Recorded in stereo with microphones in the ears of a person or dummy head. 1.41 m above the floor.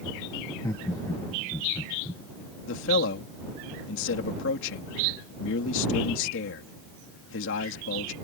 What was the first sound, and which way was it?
Laughter, 20° left (ahead or behind).